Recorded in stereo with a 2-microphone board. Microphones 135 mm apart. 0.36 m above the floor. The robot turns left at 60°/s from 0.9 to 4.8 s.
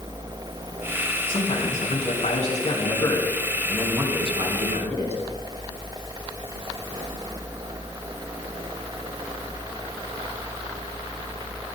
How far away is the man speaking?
About 4.5 m.